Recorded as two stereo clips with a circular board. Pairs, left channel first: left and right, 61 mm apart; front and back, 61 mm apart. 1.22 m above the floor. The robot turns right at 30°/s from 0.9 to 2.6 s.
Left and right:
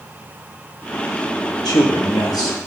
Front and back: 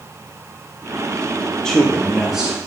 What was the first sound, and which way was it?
A man speaking, 80° left.